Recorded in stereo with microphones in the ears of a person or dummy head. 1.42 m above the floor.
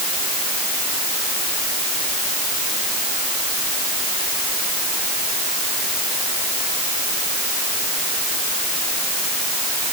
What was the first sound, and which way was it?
Only background noise.